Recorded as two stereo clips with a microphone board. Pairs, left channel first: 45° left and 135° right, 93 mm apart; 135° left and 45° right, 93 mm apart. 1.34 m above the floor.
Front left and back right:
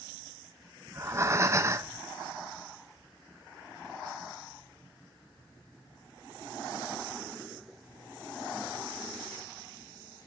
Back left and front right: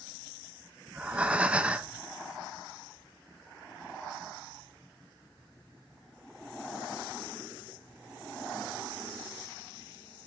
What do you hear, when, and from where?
0.9 s breathing: 110° right, 0.6 m